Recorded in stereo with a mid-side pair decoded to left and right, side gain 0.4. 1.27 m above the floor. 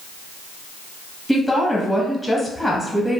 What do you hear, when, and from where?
1.3 s a woman speaking: 15° left, 1.0 m